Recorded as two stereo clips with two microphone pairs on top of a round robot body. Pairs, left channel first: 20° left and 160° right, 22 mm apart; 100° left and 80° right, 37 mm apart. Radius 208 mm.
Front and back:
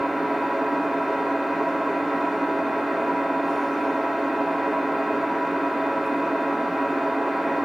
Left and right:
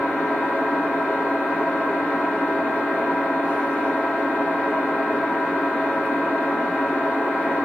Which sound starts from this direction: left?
An engine running, at 0.0 s.